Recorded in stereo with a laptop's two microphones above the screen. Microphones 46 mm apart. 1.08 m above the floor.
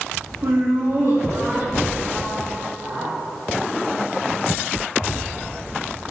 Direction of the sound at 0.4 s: 65° right (ahead or behind).